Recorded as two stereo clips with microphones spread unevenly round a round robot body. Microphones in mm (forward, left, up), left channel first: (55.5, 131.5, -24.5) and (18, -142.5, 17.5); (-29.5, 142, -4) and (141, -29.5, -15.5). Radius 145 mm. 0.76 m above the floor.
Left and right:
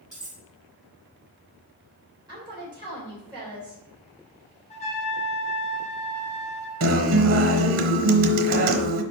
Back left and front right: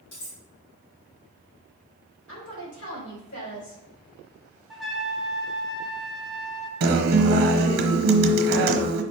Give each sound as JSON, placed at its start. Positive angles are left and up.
{"t": 0.1, "sound": "cutlery clinking", "azimuth_deg": 175, "distance_m": 3.0}
{"t": 2.3, "sound": "a woman speaking", "azimuth_deg": -175, "distance_m": 3.5}
{"t": 4.7, "sound": "a trumpet", "azimuth_deg": 40, "distance_m": 1.1}
{"t": 6.8, "sound": "a guitar", "azimuth_deg": -75, "distance_m": 1.1}